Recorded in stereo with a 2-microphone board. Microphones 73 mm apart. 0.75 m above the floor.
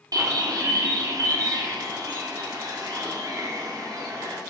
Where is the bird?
55° right (ahead or behind), 1.0 m.